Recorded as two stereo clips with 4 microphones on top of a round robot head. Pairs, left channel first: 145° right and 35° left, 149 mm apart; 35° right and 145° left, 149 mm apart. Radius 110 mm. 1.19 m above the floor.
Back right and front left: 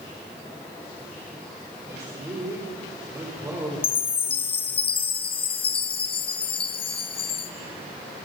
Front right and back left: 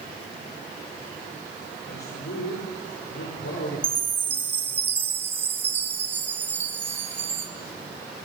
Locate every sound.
1.9 s a man speaking: 35° right, 5.5 m
3.8 s a chime: 150° right, 0.8 m